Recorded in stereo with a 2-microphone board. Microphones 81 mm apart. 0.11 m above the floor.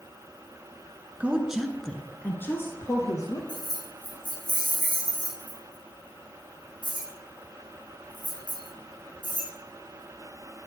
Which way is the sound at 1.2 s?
15° right (ahead or behind).